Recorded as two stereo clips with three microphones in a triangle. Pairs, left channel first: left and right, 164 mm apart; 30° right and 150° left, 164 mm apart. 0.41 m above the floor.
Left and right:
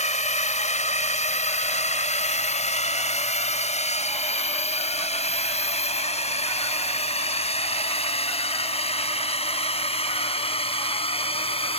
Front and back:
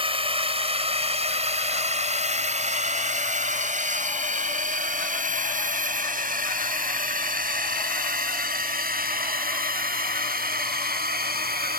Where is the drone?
110° left; by 11.8 s 140° left.